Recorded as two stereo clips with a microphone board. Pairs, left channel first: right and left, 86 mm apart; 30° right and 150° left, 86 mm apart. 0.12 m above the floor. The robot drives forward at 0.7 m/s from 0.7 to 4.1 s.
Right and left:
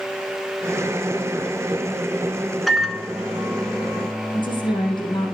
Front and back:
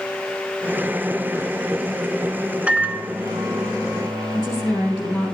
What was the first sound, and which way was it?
A microwave, straight behind.